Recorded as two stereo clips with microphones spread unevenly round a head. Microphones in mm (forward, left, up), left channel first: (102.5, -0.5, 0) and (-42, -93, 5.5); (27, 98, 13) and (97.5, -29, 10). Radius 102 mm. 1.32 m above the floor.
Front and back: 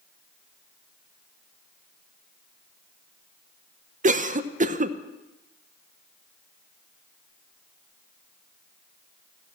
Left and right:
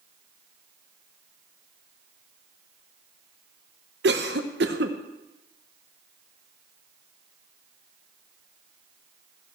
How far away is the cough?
About 0.7 m.